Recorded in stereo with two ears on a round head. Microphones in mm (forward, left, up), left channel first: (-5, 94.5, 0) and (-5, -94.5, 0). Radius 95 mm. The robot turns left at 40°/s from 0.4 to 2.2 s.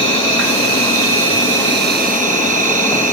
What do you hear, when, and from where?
0.0 s an insect: 65° right, 1.4 m; by 3.1 s 140° right, 1.4 m